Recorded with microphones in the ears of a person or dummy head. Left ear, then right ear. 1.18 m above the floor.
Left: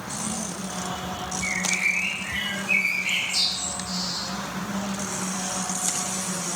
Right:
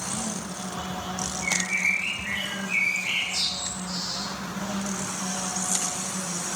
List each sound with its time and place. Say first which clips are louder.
1.4 s a bird: left 1 dB; 50° left (ahead or behind), 1.9 m